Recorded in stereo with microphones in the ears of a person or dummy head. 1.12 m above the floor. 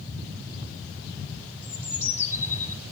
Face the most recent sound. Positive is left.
turn(degrees=15)  # may be behind; listen again after turning